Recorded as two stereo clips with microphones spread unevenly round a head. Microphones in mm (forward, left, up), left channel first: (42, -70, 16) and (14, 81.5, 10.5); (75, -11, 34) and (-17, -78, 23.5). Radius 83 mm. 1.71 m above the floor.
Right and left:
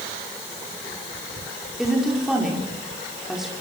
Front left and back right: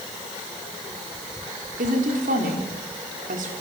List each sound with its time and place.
1.8 s a woman speaking: 170° right, 5 m